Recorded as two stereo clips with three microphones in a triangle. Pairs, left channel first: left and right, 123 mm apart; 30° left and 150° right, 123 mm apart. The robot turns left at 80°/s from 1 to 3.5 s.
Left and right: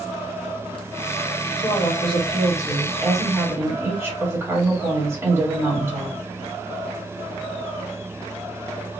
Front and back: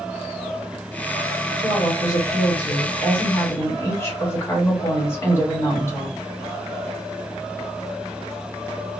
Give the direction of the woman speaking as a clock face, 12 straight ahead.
8 o'clock.